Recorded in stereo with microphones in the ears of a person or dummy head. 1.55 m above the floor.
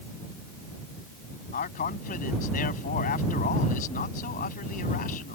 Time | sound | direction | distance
1.5 | a man speaking | 50° left (ahead or behind) | ?